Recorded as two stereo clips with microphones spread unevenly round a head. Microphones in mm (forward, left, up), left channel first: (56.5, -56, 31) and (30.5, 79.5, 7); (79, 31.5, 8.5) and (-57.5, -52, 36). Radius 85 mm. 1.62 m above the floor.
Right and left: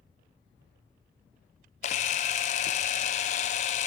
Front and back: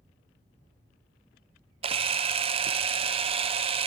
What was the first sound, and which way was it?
A camera shutter, 105° right.